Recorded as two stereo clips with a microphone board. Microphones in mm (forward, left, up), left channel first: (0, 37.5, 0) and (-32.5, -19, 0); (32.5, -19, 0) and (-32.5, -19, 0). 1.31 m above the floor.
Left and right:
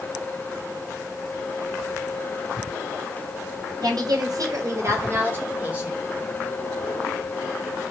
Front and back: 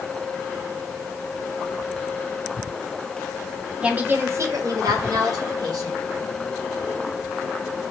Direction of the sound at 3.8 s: 105° right.